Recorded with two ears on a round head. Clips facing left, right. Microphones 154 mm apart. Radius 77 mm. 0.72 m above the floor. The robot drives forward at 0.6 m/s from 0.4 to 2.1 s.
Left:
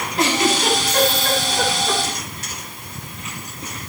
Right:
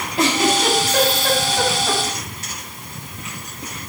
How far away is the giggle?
About 3.5 m.